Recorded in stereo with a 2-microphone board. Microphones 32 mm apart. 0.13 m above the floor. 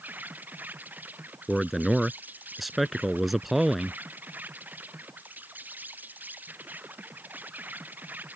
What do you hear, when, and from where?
0.0 s an insect: 60° right (ahead or behind)
1.5 s a man speaking: 5° right (ahead or behind)